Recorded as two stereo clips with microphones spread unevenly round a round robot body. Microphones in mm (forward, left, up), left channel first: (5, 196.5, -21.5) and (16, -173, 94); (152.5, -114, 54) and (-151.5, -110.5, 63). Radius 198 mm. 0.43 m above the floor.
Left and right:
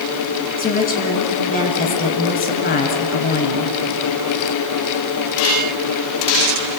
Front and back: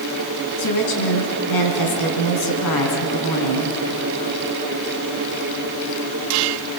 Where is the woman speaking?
30° left, 4.5 m.